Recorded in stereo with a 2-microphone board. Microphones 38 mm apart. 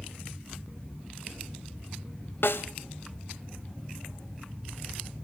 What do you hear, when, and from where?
2.4 s a snare drum: 70° left (ahead or behind), 0.8 m